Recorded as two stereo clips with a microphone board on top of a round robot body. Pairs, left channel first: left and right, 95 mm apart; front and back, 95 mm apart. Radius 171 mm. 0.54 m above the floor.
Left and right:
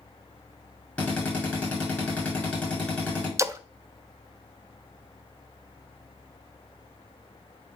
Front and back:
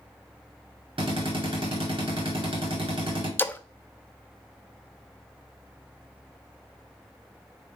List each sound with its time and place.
1.0 s a drill: 165° left, 2.5 m
3.4 s a splash: 55° right, 0.6 m